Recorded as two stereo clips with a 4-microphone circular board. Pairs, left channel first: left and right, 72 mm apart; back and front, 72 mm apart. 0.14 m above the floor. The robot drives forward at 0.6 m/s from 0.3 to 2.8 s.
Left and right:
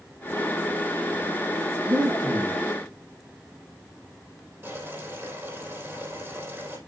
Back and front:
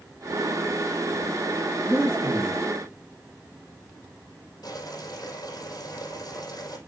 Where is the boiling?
145° right, 5 m.